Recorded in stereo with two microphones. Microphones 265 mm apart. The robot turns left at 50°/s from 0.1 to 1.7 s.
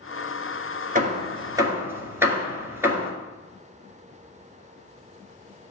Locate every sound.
0.9 s hammering: 30° right (ahead or behind), 1.9 m; by 3.1 s 10° right (ahead or behind), 1.9 m